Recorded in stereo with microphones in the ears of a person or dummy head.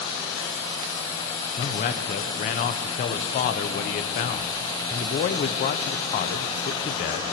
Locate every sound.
1.6 s a man speaking: 35° left (ahead or behind), 0.6 m